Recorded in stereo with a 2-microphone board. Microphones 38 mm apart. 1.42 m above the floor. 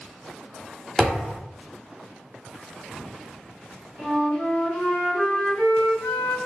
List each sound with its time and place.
1.0 s a thud: 5° right (ahead or behind), 1.2 m
4.0 s a flute: 35° left (ahead or behind), 1.7 m